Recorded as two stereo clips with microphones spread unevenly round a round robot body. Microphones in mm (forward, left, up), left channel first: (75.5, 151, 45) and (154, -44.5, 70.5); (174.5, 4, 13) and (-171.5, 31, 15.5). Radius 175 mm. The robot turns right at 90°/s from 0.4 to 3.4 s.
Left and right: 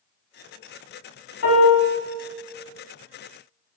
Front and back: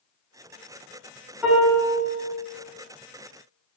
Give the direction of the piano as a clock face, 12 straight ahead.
9 o'clock.